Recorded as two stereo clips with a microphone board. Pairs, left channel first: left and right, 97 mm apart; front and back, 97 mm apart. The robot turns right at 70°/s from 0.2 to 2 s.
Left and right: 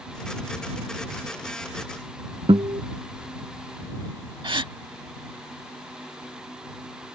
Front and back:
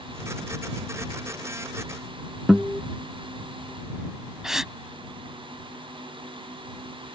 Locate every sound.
2.5 s a guitar: 95° right
4.4 s a gasp: 95° right